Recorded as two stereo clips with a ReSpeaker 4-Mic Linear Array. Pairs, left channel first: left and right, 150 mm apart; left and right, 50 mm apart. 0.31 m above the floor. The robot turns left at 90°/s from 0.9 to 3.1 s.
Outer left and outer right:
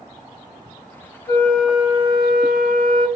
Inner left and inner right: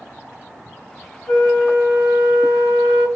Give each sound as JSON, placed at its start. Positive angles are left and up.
{"t": 1.3, "sound": "a flute", "azimuth_deg": 25, "distance_m": 1.5}